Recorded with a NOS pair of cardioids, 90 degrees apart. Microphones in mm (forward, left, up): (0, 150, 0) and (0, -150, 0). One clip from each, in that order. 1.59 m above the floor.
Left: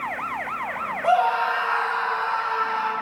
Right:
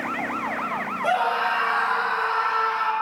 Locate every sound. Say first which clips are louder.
1.0 s a scream: left 3 dB; 35° right, 2.5 m; by 2.9 s 50° right, 4 m